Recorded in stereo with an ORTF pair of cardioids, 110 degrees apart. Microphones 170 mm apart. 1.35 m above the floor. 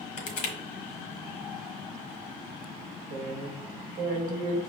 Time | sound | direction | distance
0.2 | crushing | 50° left | 1.1 m
3.1 | a woman speaking | 55° right | 1.4 m